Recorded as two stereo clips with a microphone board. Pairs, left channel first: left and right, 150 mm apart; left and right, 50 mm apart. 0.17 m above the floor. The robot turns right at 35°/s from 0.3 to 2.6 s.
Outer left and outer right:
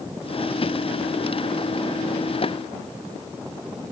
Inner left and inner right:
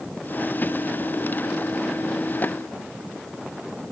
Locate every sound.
Only background noise.